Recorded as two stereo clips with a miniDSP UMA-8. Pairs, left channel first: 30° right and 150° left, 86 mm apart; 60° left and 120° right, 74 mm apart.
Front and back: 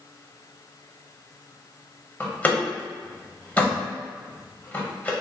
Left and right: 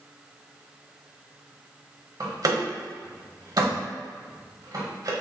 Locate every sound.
2.2 s a door slam: 100° right, 1.0 m